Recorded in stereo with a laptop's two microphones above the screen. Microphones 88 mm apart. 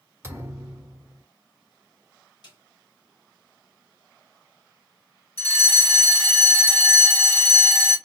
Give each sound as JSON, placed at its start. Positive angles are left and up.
{"t": 0.2, "sound": "a thud", "side_deg": -30, "distance_m": 1.1}
{"t": 2.4, "sound": "a snare drum", "side_deg": 50, "distance_m": 2.5}
{"t": 5.4, "sound": "a fire alarm", "side_deg": 15, "distance_m": 1.6}